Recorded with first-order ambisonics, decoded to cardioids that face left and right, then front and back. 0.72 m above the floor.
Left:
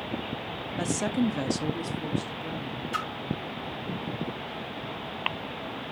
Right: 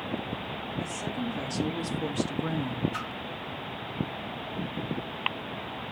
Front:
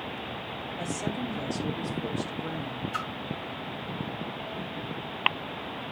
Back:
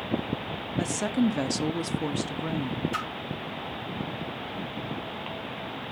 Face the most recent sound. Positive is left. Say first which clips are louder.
# left 4 dB, even
turn(degrees=135)